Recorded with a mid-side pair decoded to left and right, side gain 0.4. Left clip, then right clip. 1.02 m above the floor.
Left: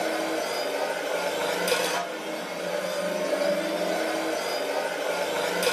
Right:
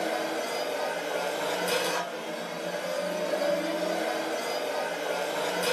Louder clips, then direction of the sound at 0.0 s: Left 2 dB; 65° left.